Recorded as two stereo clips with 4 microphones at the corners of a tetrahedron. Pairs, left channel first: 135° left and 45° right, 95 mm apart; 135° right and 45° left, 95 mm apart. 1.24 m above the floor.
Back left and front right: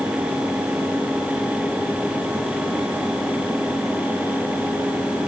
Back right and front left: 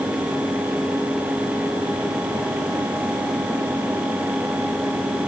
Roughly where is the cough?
I don't hear a cough.